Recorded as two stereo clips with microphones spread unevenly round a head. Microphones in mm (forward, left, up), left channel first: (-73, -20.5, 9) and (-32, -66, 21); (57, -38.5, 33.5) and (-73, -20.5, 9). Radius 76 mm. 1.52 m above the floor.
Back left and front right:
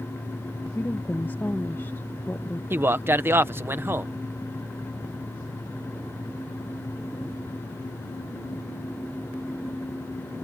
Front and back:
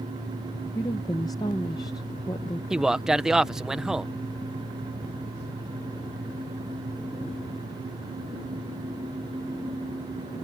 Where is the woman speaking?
60° left.